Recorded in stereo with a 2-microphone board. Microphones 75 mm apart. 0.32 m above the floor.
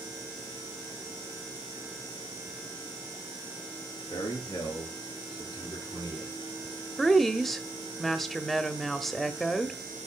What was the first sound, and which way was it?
A man speaking, 75° left (ahead or behind).